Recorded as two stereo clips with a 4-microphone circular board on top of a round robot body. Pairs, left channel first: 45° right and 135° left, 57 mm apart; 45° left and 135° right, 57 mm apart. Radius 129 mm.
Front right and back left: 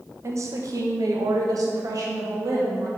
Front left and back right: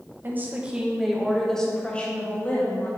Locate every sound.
0.2 s a woman speaking: 175° left, 1.4 m; by 2.9 s 105° left, 2.5 m